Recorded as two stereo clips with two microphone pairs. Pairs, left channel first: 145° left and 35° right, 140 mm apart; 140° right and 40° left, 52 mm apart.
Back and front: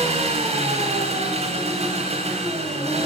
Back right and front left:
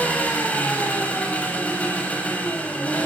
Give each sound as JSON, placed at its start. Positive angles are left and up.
{"t": 0.0, "sound": "an engine running", "azimuth_deg": -75, "distance_m": 7.0}